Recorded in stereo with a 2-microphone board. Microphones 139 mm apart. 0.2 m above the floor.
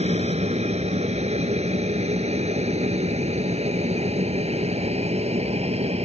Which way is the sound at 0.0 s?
50° right (ahead or behind).